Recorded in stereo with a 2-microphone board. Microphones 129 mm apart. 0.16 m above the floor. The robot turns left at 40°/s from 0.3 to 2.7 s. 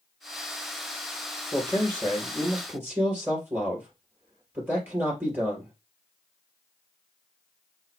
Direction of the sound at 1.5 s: 35° left.